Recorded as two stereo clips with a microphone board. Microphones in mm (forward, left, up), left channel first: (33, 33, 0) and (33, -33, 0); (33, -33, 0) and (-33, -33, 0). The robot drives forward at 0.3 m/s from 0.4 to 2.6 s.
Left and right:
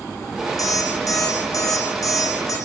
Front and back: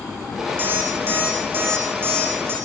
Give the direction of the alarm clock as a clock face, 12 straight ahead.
8 o'clock.